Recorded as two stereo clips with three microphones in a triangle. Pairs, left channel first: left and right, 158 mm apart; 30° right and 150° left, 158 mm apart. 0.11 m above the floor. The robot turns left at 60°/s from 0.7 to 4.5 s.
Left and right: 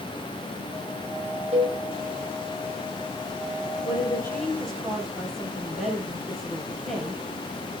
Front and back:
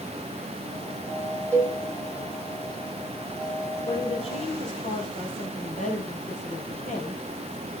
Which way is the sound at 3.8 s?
40° left.